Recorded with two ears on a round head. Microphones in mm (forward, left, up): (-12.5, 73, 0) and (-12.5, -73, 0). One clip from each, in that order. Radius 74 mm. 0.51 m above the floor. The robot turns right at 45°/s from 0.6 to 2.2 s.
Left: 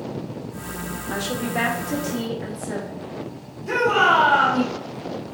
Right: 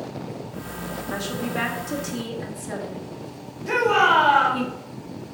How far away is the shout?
About 2.5 m.